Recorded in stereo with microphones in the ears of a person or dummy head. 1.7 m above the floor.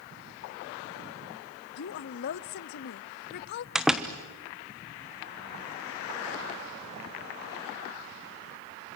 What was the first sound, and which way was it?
A woman speaking, 50° left (ahead or behind).